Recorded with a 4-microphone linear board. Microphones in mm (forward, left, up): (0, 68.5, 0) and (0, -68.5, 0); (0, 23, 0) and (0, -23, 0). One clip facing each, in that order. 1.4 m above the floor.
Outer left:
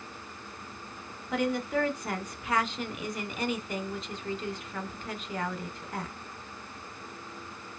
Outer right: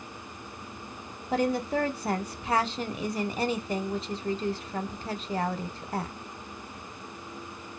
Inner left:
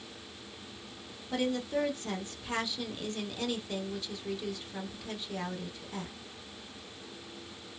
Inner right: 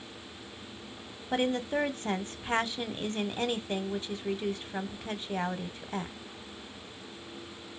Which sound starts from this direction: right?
A woman speaking, at 1.3 s.